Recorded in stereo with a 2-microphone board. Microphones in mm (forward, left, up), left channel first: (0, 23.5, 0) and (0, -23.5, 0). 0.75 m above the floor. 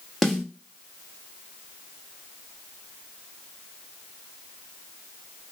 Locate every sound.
0.2 s a snare drum: centre (ahead or behind), 1.2 m